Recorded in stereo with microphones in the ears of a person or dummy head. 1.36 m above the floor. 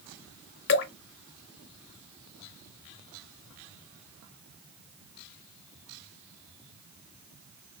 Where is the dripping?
55° left (ahead or behind), 0.7 m.